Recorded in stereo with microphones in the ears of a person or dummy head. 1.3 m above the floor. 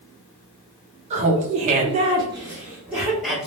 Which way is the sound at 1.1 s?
35° right (ahead or behind).